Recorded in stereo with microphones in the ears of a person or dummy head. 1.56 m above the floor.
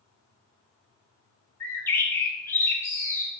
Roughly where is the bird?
Centre.